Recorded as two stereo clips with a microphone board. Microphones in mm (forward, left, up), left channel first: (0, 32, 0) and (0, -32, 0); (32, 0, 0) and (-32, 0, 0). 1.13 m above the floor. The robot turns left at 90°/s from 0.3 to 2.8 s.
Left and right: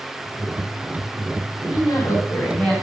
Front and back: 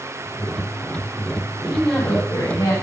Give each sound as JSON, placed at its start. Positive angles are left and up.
{"t": 1.6, "sound": "a woman speaking", "azimuth_deg": 100, "distance_m": 3.5}